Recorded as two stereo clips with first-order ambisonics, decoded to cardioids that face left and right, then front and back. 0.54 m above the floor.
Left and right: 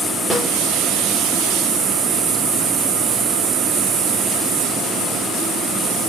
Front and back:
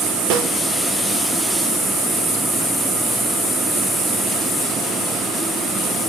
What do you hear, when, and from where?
0.3 s a snare drum: straight behind, 6.5 m